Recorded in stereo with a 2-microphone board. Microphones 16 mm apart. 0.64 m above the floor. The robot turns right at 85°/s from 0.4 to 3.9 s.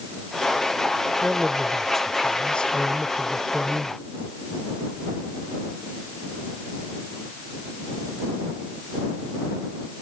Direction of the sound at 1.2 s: 45° right.